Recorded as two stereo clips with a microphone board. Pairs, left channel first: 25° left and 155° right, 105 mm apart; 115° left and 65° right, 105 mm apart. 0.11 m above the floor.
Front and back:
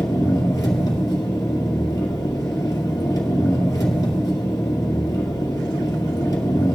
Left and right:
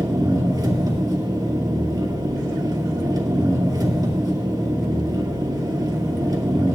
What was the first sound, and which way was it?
An engine running, 25° right.